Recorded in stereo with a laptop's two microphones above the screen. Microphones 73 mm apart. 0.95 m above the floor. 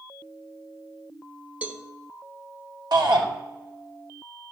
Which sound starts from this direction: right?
A shout, at 2.9 s.